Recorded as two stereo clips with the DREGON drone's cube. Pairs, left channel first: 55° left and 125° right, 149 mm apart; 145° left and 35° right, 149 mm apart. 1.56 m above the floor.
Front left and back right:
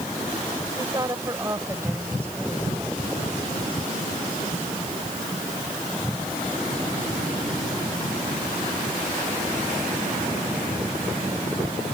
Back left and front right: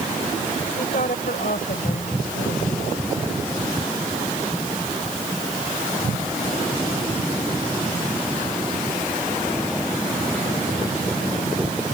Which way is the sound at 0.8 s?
175° left.